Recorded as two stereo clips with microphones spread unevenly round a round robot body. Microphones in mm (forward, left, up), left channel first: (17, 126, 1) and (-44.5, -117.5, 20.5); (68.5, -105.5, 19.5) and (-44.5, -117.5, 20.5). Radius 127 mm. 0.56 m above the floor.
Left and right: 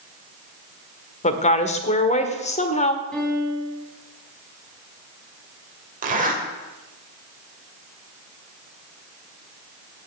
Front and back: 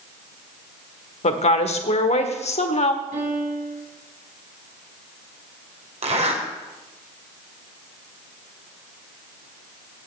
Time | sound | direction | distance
1.2 | a woman speaking | 15° left | 1.4 m
3.1 | a piano | 160° left | 4.5 m
6.0 | a zipper | 165° right | 2.5 m